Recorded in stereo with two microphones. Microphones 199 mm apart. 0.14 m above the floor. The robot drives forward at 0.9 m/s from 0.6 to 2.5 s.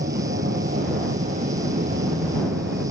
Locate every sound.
0.0 s an aircraft: 55° right (ahead or behind); by 2.9 s 60° right (ahead or behind)